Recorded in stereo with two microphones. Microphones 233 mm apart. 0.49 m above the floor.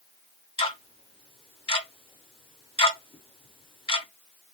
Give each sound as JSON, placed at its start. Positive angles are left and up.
{"t": 0.6, "sound": "ticking", "side_deg": 25, "distance_m": 0.5}